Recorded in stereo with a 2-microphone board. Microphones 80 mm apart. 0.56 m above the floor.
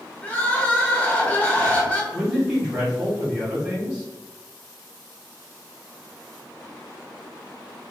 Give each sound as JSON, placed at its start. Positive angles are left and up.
{"t": 0.2, "sound": "crying", "side_deg": 15, "distance_m": 0.6}
{"t": 2.1, "sound": "a man speaking", "side_deg": -15, "distance_m": 1.7}